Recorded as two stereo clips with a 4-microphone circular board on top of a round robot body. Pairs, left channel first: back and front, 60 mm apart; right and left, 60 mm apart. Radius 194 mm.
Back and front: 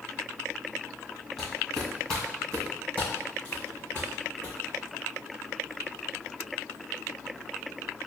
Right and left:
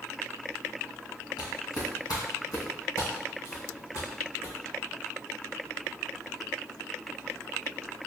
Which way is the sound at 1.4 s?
95° right.